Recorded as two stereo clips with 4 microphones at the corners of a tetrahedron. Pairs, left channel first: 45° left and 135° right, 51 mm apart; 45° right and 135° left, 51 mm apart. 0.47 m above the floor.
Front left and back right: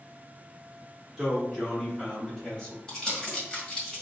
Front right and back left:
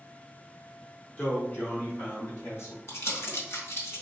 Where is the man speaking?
50° right, 1.0 m; by 2.8 s 15° right, 2.5 m.